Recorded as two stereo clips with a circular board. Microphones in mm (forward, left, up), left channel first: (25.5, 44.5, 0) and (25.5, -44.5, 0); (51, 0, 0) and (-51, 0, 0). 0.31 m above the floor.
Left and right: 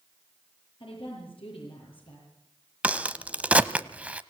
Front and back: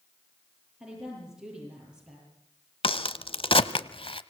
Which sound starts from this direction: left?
A woman speaking, at 0.8 s.